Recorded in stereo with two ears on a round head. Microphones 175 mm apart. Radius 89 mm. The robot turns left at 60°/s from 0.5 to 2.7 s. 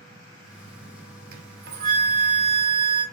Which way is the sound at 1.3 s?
65° right.